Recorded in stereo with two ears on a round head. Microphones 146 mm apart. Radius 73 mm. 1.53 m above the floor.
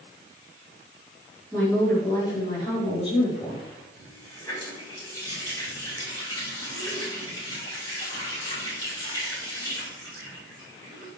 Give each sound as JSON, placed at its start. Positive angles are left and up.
{"t": 1.5, "sound": "a woman speaking", "side_deg": 10, "distance_m": 5.0}
{"t": 4.0, "sound": "a running tap", "side_deg": 25, "distance_m": 5.0}